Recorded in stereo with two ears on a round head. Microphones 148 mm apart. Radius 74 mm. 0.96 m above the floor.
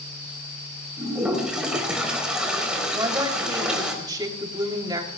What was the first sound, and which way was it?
A toilet flushing, 5° right (ahead or behind).